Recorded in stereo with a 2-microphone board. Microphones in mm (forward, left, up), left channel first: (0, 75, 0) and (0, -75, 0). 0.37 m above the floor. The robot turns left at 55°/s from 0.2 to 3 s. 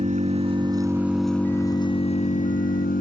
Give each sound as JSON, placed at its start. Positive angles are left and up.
{"t": 0.0, "sound": "an engine running", "azimuth_deg": -125}